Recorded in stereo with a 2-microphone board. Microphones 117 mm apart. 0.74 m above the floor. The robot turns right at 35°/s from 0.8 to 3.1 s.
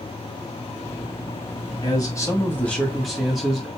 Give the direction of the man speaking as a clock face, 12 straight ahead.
7 o'clock.